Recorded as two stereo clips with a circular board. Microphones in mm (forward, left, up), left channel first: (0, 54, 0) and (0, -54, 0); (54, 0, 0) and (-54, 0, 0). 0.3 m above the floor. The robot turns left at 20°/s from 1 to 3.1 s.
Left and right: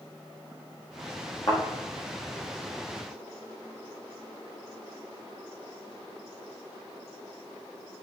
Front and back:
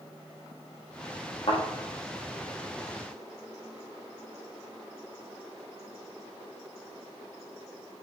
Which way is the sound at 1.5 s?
40° left.